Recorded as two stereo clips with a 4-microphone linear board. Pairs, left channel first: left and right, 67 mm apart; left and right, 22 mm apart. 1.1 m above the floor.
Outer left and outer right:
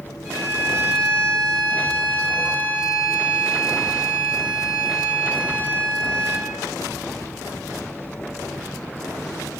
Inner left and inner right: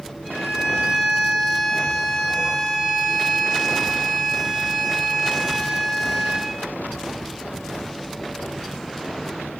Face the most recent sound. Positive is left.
turn(degrees=-25)  # may be behind; listen again after turning